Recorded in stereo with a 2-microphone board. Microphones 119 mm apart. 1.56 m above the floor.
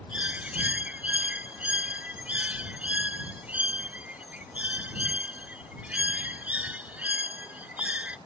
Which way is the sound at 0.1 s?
10° right (ahead or behind).